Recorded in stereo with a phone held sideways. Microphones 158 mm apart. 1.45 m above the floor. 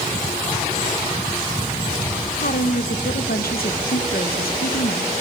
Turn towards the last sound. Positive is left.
turn(degrees=80)